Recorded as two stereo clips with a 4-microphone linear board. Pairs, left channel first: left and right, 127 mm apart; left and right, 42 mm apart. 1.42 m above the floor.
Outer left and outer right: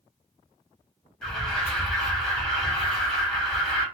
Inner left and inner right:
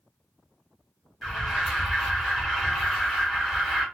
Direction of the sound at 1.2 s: 5° left (ahead or behind).